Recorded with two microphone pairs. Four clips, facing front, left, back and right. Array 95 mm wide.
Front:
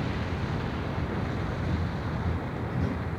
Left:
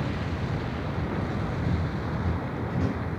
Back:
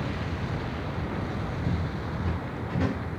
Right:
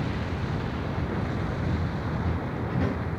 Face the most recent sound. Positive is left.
turn(degrees=-140)